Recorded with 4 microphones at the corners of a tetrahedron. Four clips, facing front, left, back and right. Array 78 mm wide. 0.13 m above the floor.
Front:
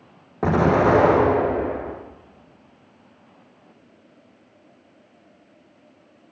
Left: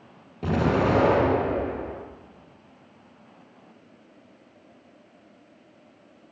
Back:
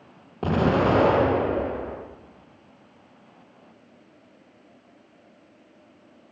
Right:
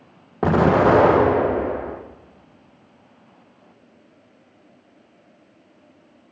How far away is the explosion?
About 6.5 m.